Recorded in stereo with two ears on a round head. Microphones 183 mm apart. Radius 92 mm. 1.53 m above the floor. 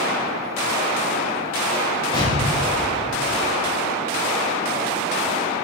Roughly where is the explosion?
Left.